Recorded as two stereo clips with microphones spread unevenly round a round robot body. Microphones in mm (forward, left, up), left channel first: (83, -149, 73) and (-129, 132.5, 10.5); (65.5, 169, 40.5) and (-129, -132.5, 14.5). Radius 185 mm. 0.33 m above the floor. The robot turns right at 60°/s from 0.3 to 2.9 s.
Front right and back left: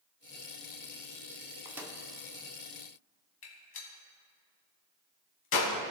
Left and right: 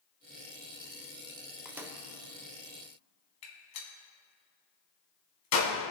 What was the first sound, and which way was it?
A microwave, 165° left.